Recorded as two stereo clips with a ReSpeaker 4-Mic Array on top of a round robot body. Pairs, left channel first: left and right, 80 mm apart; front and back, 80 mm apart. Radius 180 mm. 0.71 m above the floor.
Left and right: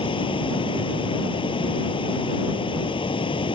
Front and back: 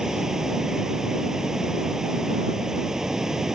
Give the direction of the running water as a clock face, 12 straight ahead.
9 o'clock.